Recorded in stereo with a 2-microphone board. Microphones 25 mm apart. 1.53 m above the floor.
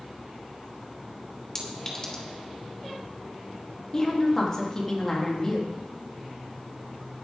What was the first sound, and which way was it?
A clink, 25° left (ahead or behind).